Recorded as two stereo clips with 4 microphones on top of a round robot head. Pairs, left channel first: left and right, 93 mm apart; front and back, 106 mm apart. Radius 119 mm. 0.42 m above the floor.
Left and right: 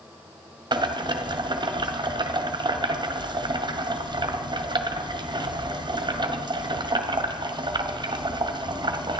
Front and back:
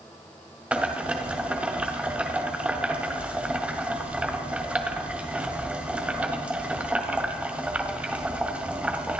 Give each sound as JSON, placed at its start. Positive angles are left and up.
{"t": 0.7, "sound": "boiling", "azimuth_deg": -105, "distance_m": 1.6}